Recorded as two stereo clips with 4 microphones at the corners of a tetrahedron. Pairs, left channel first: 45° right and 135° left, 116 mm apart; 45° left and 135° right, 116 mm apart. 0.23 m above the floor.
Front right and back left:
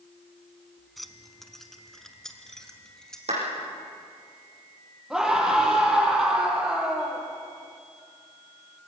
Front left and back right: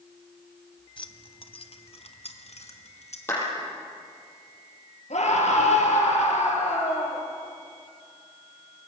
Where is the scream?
50° left, 6 m.